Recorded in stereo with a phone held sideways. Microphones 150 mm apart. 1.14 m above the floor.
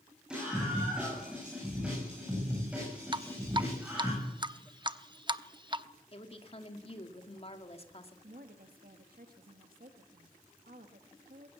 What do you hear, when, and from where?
0.3 s a scream: 5° right (ahead or behind), 9.5 m; by 4.1 s 10° right (ahead or behind), 7.5 m
3.1 s dripping: 30° right (ahead or behind), 0.7 m
6.1 s a woman speaking: 40° left (ahead or behind), 2 m
8.2 s a woman speaking: 75° right (ahead or behind), 1.6 m